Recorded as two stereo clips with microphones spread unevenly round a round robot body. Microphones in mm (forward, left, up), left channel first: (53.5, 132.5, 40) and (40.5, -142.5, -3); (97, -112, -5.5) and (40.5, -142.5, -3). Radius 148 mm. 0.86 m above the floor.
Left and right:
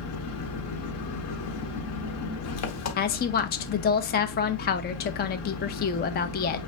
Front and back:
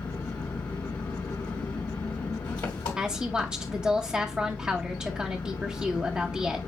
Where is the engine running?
60° left, 1.1 m.